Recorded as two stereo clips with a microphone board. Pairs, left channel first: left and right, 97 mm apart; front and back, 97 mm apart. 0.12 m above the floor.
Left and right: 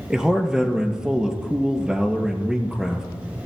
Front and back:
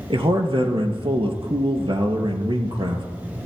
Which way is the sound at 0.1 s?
170° right.